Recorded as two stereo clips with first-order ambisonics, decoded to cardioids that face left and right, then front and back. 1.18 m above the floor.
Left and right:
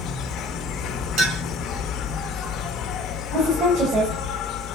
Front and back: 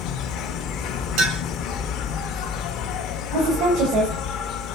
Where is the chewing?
I don't hear chewing.